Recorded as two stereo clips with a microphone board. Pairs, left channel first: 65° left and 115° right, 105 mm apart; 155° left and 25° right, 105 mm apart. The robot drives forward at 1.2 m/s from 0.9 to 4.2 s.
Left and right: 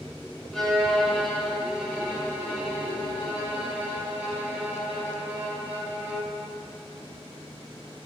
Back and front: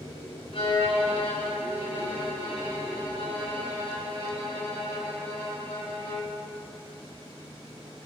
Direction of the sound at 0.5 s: 155° left.